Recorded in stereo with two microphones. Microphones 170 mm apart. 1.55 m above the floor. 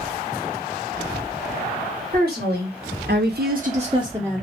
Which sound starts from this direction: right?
A woman speaking, at 2.1 s.